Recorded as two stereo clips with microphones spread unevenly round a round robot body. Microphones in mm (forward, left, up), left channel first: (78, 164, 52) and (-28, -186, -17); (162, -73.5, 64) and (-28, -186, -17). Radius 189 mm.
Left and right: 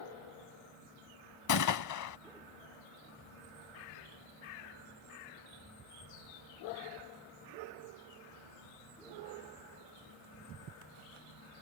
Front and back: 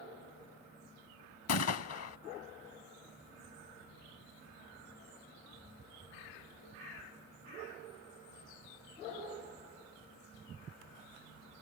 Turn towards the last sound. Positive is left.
turn(degrees=30)